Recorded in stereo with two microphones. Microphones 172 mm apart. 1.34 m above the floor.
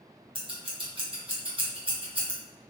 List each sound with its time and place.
0.3 s scissors: 30° right (ahead or behind), 0.8 m